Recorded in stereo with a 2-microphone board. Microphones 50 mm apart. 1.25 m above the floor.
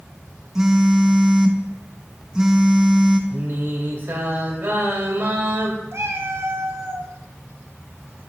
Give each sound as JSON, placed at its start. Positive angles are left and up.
{"t": 0.6, "sound": "a phone buzzing", "side_deg": -10, "distance_m": 0.6}
{"t": 3.3, "sound": "singing", "side_deg": -40, "distance_m": 1.7}
{"t": 5.9, "sound": "a cat meowing", "side_deg": -60, "distance_m": 0.9}